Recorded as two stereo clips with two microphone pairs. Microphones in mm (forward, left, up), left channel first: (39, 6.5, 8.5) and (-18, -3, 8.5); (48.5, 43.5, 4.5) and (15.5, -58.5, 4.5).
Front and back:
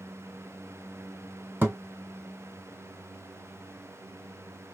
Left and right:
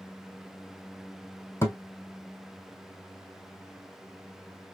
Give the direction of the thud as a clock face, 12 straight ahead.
7 o'clock.